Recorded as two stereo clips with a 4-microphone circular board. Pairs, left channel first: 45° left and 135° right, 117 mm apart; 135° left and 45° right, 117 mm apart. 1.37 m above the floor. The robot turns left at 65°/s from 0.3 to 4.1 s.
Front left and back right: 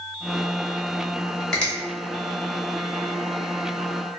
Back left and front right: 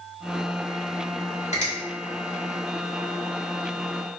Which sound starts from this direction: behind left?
A finger snap, at 1.5 s.